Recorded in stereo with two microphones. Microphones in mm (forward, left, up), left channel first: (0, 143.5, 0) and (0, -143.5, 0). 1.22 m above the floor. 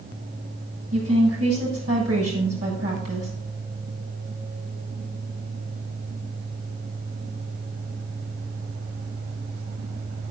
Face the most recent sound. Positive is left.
turn(degrees=-55)  # may be behind; listen again after turning